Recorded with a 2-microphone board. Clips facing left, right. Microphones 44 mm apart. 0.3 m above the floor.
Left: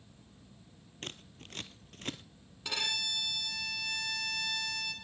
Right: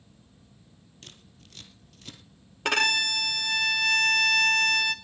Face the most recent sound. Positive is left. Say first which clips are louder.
# right 11 dB
turn(degrees=-75)  # may be behind; listen again after turning